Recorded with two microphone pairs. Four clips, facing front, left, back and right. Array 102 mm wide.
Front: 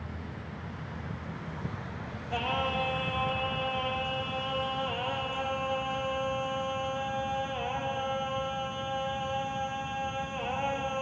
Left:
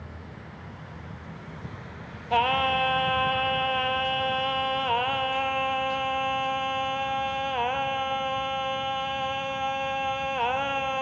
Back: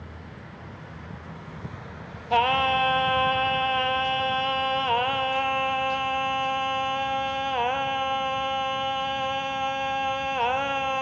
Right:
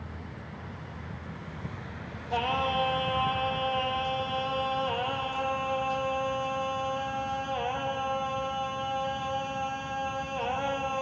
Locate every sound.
2.3 s singing: 145° left, 1.1 m